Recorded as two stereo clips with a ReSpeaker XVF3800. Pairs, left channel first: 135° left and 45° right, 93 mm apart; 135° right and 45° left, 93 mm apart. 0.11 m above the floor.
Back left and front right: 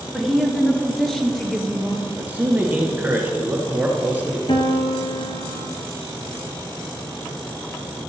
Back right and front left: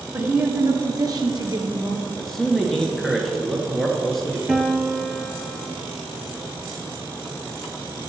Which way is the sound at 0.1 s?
35° left.